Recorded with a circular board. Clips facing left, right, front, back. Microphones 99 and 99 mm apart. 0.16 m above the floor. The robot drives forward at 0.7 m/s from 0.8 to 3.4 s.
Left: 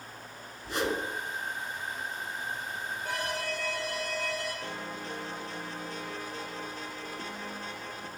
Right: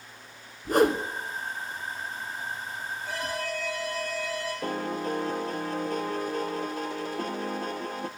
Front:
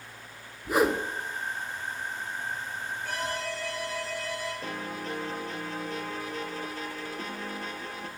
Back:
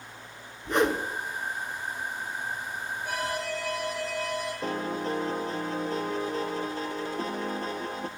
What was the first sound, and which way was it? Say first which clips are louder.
A whoosh: right 9 dB, even; 80° right.